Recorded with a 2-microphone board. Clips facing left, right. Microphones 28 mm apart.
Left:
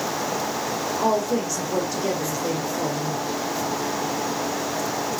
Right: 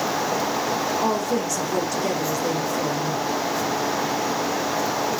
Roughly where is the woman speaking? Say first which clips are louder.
Left 1 dB; centre.